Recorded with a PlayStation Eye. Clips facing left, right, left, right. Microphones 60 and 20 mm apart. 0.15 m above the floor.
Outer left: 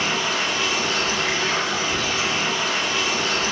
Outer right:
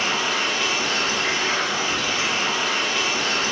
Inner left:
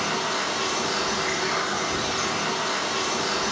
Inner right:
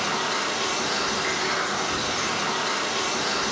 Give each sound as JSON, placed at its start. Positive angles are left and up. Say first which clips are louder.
{"t": 0.0, "sound": "running water", "louder": "even, even", "side_deg": -60, "distance_m": 1.4}